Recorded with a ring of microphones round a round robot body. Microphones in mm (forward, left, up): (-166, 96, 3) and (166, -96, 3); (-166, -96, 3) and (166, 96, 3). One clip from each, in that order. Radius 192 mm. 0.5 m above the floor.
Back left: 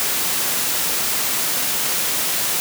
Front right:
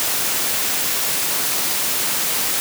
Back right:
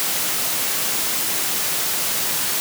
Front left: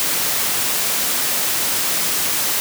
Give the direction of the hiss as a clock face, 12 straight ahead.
I don't hear a hiss.